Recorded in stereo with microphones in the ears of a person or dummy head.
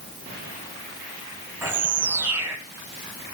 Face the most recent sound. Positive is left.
turn(degrees=-15)  # may be behind; listen again after turning